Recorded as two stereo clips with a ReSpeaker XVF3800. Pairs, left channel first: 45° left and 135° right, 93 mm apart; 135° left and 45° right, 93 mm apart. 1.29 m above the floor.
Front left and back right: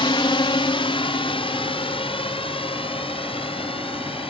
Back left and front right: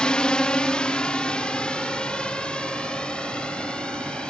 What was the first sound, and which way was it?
A drone, 55° left.